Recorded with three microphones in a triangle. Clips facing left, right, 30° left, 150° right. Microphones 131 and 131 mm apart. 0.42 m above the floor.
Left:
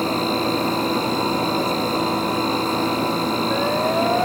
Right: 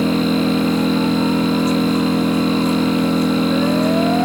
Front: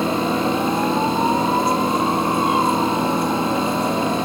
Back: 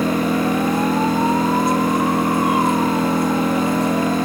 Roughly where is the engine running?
Right.